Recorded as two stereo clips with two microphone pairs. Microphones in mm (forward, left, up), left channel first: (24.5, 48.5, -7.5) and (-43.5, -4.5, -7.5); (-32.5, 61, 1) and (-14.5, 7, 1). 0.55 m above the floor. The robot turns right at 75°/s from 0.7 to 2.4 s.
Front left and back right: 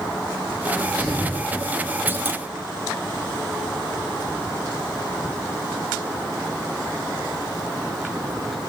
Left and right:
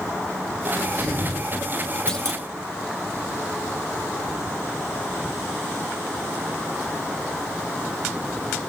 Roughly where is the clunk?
Behind.